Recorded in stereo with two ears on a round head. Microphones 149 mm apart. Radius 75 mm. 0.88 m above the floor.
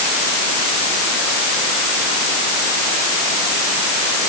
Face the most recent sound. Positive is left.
No sound to turn to.